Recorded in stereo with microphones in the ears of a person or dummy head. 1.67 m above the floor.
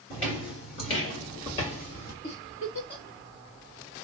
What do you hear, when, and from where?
0.1 s footsteps: 25° left (ahead or behind), 1.7 m; by 2.1 s 35° left (ahead or behind), 2.5 m
2.2 s a giggle: 30° left (ahead or behind), 0.9 m